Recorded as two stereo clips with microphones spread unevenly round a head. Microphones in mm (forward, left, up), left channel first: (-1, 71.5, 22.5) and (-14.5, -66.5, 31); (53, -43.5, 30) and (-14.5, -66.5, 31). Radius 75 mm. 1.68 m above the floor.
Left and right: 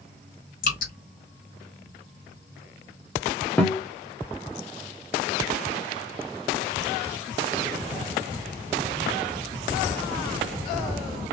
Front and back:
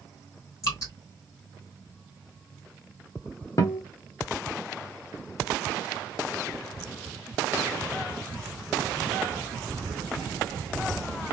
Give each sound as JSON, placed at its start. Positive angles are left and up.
{"t": 0.6, "sound": "dripping", "azimuth_deg": 75, "distance_m": 2.0}
{"t": 3.6, "sound": "a guitar", "azimuth_deg": 5, "distance_m": 0.9}